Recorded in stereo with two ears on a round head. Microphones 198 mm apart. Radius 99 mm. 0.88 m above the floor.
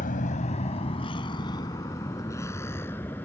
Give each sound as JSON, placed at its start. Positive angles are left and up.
{"t": 0.0, "sound": "a vehicle", "side_deg": 40}